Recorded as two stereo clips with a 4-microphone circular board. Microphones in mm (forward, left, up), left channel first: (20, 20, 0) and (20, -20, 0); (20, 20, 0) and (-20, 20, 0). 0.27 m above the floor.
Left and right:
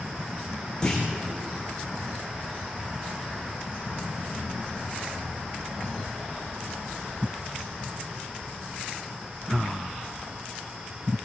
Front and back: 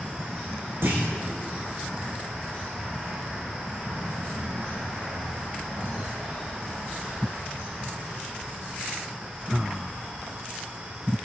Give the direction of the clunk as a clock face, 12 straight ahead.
7 o'clock.